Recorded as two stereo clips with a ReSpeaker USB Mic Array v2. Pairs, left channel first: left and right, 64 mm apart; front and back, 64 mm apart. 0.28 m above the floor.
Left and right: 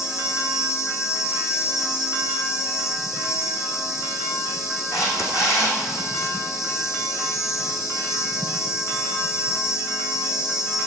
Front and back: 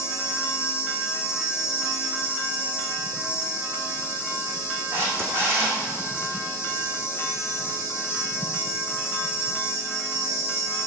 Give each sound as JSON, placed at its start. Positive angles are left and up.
{"t": 0.0, "sound": "an insect", "azimuth_deg": 50, "distance_m": 2.0}
{"t": 4.9, "sound": "a camera shutter", "azimuth_deg": 125, "distance_m": 4.0}